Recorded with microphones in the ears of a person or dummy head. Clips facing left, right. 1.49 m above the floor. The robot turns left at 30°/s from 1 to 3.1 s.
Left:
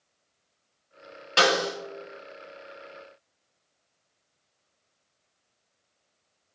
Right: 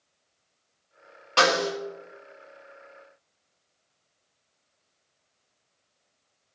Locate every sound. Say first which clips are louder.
1.4 s a snare drum: right 1 dB; 15° left (ahead or behind), 1.5 m; by 1.7 s 5° left (ahead or behind), 1.5 m